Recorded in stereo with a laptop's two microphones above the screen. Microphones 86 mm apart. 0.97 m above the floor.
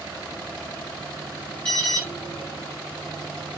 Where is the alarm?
15° left (ahead or behind), 4 m.